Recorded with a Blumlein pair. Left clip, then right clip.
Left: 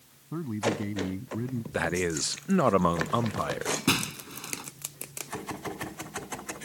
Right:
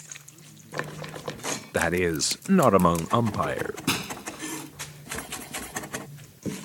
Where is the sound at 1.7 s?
15° right.